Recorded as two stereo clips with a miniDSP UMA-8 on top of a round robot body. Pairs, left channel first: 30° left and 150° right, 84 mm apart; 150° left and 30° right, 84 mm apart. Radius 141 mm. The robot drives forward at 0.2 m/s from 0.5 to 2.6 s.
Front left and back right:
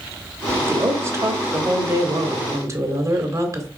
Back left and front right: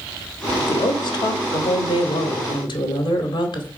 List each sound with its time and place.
0.6 s a woman speaking: 155° left, 1.5 m; by 3.7 s 160° left, 1.9 m